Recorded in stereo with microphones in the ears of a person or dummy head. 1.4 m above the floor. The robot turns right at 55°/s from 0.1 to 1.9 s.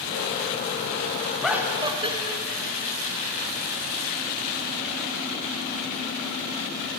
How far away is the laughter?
About 1.3 m.